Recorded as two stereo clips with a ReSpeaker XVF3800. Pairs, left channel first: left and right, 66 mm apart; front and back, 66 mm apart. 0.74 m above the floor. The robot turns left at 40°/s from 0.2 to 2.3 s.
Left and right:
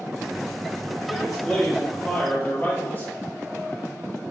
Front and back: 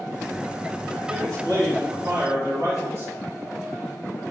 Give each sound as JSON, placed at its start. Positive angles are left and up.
{"t": 1.1, "sound": "a man speaking", "azimuth_deg": -170, "distance_m": 2.0}